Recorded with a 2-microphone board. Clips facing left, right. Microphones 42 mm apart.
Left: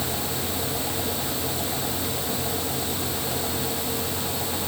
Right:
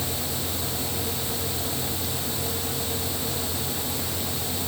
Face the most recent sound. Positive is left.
No sound to turn to.